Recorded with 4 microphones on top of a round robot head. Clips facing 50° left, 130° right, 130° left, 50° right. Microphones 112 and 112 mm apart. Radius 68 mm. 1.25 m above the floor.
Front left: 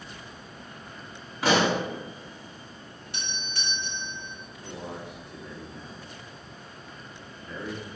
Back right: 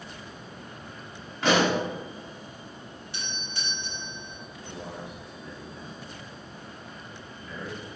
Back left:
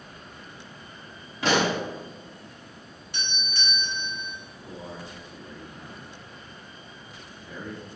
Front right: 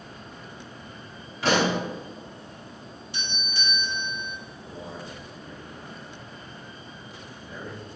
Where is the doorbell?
90° left, 2.5 m.